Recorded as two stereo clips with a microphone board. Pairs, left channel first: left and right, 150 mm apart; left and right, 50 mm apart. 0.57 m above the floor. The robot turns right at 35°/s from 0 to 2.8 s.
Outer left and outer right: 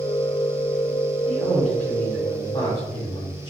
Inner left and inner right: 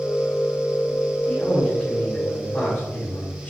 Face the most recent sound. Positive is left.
turn(degrees=45)